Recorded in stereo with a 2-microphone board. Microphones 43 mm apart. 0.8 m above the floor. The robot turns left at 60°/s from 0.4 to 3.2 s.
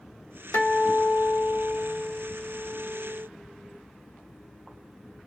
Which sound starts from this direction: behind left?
A guitar, at 0.5 s.